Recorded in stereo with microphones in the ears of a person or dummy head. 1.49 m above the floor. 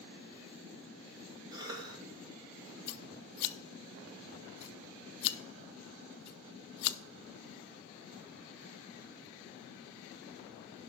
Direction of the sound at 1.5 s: 20° right (ahead or behind).